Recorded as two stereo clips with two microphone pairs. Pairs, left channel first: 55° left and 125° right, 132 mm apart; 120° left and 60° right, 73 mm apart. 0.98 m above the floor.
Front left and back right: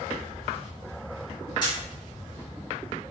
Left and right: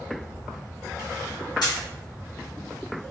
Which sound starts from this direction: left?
A camera shutter, at 1.6 s.